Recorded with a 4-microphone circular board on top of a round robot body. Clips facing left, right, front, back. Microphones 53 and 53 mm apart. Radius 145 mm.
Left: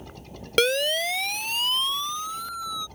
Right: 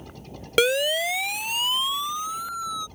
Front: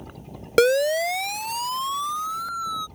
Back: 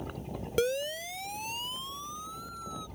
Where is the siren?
5° right; by 2.9 s 10° right.